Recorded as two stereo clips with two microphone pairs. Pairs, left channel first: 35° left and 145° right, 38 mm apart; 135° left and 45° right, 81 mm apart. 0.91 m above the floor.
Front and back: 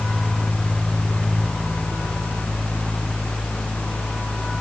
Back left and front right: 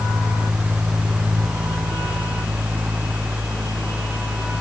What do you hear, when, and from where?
Only background noise.